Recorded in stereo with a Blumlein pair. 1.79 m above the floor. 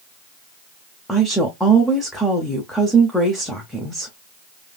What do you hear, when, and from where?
1.1 s a woman speaking: 5° left, 0.9 m